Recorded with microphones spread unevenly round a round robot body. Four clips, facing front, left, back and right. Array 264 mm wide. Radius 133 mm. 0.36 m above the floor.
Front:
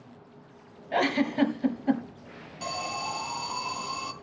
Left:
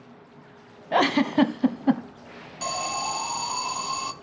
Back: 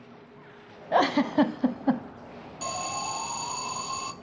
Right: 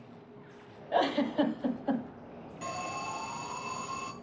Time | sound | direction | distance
0.9 | a giggle | 110° left | 1.4 m
2.6 | an alarm | 95° left | 2.5 m